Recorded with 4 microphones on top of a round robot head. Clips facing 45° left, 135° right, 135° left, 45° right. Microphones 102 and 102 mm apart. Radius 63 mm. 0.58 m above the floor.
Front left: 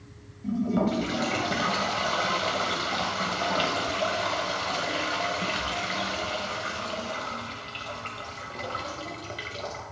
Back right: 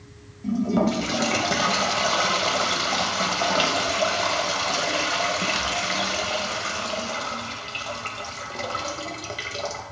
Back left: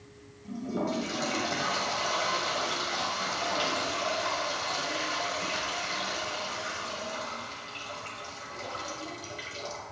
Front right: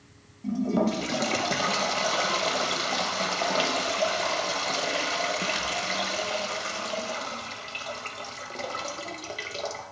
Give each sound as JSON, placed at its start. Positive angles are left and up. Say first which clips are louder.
{"t": 0.4, "sound": "a toilet flushing", "louder": "back right 4 dB, front right 7 dB", "azimuth_deg": -80, "distance_m": 0.6}